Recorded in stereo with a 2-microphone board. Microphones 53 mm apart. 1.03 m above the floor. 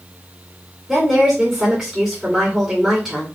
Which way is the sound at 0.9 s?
10° right (ahead or behind).